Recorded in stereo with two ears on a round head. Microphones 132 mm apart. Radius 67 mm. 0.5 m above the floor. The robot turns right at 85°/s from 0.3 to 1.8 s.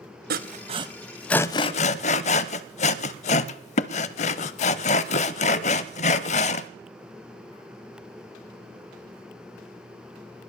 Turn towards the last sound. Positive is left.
turn(degrees=45)  # may be behind; listen again after turning